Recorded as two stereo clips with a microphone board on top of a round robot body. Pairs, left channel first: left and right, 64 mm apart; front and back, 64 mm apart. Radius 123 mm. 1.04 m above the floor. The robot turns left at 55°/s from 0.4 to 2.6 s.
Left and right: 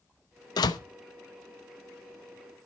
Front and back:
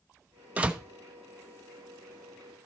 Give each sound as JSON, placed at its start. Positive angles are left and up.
{"t": 0.6, "sound": "a door slam", "azimuth_deg": 110, "distance_m": 0.7}